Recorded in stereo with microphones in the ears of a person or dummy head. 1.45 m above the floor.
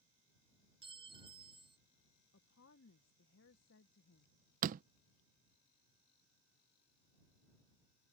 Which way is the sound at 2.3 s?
65° left (ahead or behind).